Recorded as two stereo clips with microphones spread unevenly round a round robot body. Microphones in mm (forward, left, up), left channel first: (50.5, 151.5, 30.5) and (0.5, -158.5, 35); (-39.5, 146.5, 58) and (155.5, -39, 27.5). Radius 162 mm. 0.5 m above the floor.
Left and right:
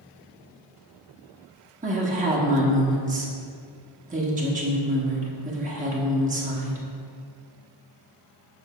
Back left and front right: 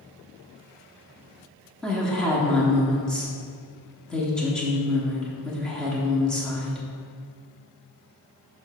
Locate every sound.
1.8 s a woman speaking: 125° right, 1.1 m